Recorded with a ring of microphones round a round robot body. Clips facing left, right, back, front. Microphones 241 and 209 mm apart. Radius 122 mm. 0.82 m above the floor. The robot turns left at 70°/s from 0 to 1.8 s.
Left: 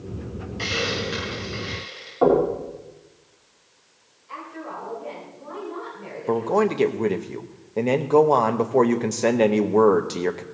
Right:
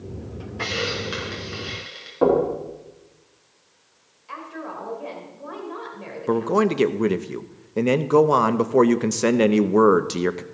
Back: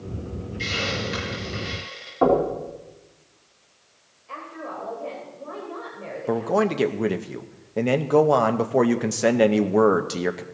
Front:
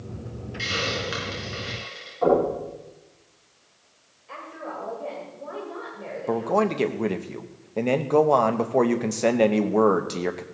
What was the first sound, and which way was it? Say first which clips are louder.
A hiss: even, even; 20° left.